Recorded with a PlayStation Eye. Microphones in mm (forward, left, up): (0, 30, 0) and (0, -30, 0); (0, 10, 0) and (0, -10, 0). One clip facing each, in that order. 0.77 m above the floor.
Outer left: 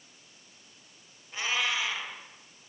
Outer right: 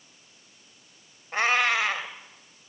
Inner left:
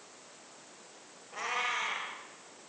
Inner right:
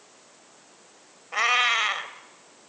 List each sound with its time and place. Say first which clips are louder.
1.3 s a cat meowing: outer right 8 dB, inner right 12 dB; 65° right (ahead or behind), 1.8 m